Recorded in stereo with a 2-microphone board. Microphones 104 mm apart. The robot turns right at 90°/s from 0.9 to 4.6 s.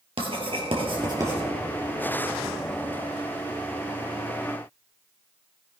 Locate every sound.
0.2 s writing: 60° right (ahead or behind), 3 m; by 1.4 s 15° right (ahead or behind), 3 m